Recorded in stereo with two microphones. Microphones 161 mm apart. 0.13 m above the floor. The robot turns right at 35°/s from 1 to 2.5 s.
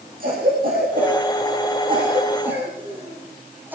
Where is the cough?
60° right (ahead or behind), 8 m; by 3.8 s 10° right (ahead or behind), 8 m.